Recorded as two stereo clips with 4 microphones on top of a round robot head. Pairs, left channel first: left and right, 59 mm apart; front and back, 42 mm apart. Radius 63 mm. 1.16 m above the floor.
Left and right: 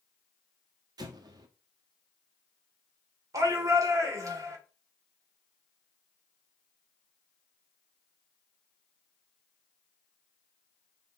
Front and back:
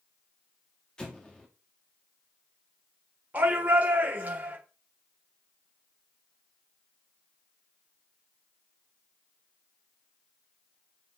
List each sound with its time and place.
1.0 s an explosion: 75° right, 1.6 m
3.3 s a shout: 120° right, 3.5 m